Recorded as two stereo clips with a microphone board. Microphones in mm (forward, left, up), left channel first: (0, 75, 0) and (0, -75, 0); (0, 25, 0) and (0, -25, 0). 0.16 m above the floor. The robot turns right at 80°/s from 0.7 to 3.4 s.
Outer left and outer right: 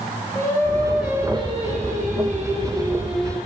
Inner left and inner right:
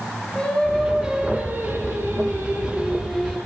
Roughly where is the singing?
Behind.